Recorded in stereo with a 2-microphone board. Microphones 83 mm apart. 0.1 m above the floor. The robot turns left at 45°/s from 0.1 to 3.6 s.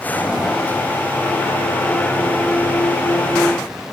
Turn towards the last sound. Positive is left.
No sound to turn to.